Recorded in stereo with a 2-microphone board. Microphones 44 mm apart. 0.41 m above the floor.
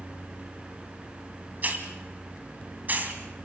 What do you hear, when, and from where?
1.6 s a hiss: 40° right (ahead or behind), 2.5 m